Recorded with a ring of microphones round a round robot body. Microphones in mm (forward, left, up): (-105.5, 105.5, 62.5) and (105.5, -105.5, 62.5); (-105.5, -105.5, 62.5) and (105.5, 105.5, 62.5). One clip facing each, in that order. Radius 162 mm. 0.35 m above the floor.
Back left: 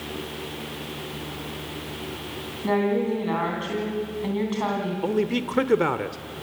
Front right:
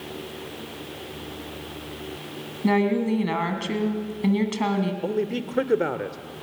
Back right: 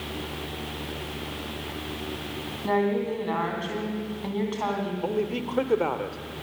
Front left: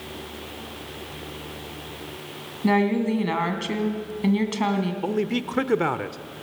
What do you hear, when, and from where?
2.6 s a woman speaking: straight ahead, 3 m
5.0 s a man speaking: 70° left, 0.9 m